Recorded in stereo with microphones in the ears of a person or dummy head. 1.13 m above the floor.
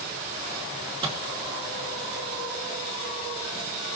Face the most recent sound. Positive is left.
turn(degrees=-30)  # may be behind; listen again after turning